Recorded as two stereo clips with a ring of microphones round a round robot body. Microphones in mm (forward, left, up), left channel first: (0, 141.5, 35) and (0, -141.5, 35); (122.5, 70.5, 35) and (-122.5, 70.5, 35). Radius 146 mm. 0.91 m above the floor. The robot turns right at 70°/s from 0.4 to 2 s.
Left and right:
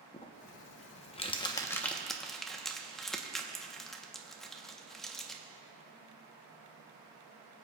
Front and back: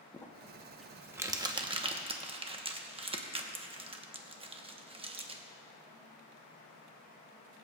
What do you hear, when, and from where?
0.1 s crumpling: 65° left, 0.9 m; by 5.4 s 175° left, 0.9 m